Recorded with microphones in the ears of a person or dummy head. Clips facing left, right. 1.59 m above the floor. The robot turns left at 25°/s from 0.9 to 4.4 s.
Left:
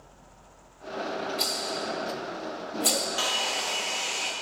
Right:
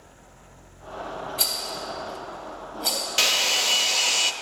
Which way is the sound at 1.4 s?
15° right (ahead or behind).